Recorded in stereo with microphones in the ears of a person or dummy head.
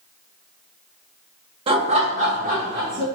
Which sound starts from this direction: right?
Laughter, at 1.7 s.